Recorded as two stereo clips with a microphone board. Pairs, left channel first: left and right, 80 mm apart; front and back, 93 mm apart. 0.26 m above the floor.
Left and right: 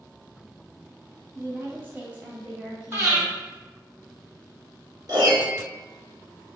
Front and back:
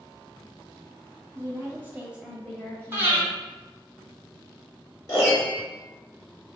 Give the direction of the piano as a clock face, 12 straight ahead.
2 o'clock.